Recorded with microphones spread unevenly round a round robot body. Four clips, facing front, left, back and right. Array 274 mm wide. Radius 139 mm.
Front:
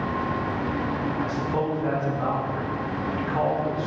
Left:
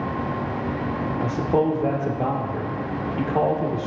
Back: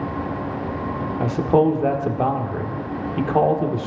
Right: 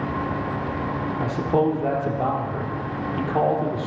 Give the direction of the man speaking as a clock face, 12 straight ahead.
6 o'clock.